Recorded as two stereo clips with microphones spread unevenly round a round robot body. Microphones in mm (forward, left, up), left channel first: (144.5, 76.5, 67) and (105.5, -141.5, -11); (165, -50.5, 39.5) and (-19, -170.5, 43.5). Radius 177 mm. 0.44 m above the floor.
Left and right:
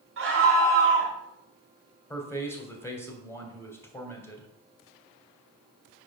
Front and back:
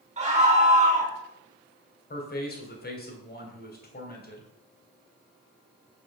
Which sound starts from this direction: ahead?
A man speaking, at 2.1 s.